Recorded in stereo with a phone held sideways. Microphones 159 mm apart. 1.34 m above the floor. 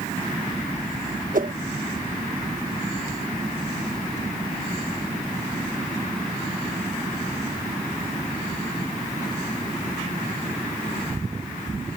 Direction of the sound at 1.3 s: 60° right (ahead or behind).